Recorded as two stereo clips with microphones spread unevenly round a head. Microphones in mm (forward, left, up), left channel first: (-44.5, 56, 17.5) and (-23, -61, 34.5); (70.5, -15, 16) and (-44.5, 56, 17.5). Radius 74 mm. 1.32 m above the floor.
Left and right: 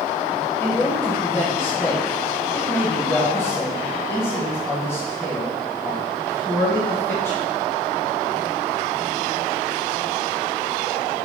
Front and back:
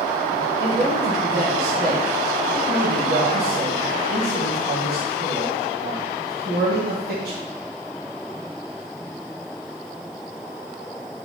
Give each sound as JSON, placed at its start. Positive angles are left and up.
{"t": 0.6, "sound": "a man speaking", "azimuth_deg": 170, "distance_m": 1.4}